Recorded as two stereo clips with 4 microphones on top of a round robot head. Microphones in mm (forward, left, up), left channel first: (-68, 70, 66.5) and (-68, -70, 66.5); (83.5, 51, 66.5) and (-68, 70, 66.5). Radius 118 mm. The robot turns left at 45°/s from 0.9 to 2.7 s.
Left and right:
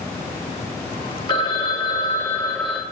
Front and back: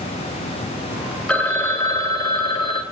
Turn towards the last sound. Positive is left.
turn(degrees=10)